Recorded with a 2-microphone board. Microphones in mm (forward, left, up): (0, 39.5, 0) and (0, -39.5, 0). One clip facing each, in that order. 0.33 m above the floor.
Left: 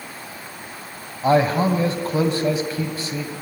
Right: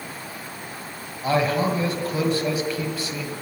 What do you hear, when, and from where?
1.2 s a man speaking: 30° left (ahead or behind), 2 m